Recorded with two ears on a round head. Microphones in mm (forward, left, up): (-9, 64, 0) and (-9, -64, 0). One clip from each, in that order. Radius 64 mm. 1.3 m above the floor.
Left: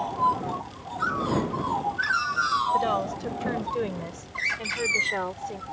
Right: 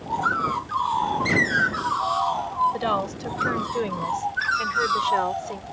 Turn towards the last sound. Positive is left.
turn(degrees=-20)  # may be behind; listen again after turning